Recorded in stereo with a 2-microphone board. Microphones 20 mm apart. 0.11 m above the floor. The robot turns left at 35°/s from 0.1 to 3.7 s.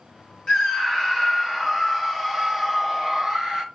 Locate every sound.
0.5 s a scream: 55° left, 2.0 m; by 3.6 s 55° right, 2.0 m